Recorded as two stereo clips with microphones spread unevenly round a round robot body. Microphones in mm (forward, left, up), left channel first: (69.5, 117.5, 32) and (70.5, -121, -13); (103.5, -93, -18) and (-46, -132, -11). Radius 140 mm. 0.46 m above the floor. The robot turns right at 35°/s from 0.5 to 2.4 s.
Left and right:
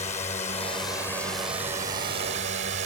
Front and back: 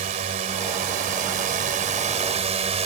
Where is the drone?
160° left; by 2.9 s 135° right.